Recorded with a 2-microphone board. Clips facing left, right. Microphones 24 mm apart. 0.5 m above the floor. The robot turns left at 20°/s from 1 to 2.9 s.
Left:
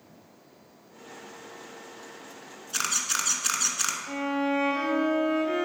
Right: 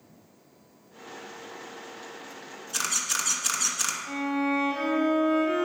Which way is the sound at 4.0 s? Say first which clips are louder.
Right 1 dB; 25° left (ahead or behind).